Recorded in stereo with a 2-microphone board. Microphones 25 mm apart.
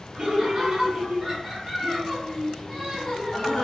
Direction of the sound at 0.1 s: 40° right (ahead or behind).